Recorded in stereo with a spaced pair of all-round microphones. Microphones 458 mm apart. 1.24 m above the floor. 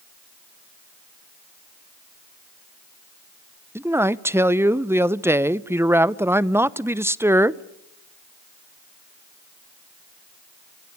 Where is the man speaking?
5° right (ahead or behind), 0.6 m.